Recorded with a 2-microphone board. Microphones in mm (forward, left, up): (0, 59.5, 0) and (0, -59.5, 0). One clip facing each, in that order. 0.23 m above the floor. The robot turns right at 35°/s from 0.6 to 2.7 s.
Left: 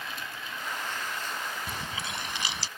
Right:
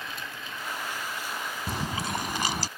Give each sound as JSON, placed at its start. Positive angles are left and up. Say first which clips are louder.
{"t": 1.7, "sound": "chewing", "louder": "right 5 dB", "azimuth_deg": -120}